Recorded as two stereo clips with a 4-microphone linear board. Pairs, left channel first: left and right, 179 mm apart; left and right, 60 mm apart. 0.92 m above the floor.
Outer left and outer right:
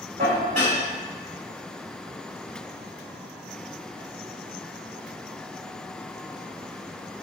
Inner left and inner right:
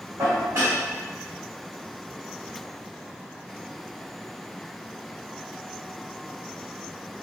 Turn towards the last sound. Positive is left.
turn(degrees=-40)  # may be behind; listen again after turning